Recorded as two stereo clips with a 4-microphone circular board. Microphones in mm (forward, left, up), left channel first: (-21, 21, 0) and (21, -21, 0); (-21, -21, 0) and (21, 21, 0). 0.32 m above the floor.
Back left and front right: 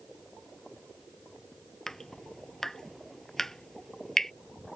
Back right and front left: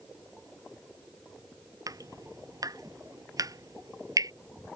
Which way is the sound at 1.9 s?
50° left.